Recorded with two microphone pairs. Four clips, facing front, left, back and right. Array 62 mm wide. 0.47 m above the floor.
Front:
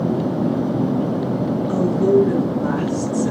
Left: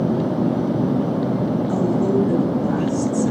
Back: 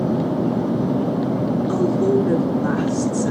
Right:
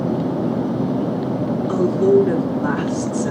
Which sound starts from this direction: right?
A woman speaking, at 1.7 s.